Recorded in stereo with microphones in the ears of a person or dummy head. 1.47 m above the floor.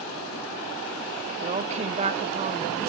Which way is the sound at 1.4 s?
35° right (ahead or behind).